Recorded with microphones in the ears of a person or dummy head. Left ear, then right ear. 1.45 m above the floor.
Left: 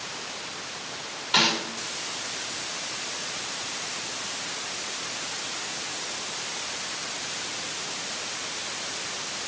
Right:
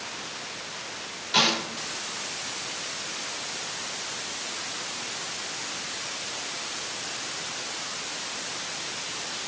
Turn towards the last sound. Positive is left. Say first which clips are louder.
# even
turn(degrees=40)  # may be behind; listen again after turning